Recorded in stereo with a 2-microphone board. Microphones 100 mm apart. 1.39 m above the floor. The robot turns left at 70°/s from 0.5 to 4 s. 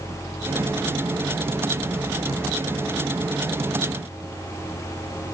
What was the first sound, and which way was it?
Only background noise.